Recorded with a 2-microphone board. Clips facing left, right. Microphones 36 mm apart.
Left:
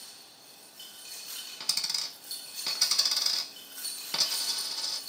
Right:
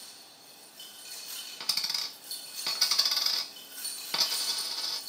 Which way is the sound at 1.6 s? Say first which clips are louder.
Even; 10° right (ahead or behind).